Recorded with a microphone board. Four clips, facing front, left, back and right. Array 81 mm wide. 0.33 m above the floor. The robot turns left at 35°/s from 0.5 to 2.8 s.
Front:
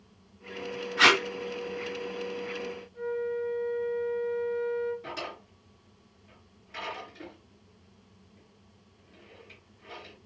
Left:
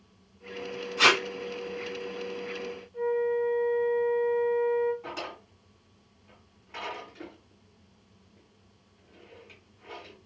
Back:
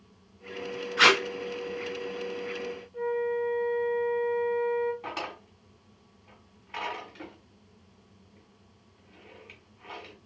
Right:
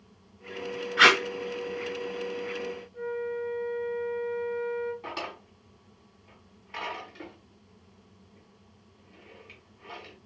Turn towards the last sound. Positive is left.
turn(degrees=-155)